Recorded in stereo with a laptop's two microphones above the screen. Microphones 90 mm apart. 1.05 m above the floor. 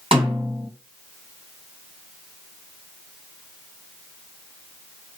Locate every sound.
0.1 s a snare drum: 80° right, 2 m